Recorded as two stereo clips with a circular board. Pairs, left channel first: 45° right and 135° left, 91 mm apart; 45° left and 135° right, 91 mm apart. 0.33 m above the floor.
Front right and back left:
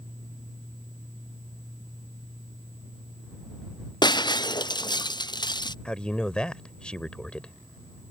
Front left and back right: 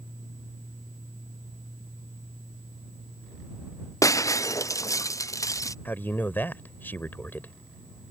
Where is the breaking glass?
10° right.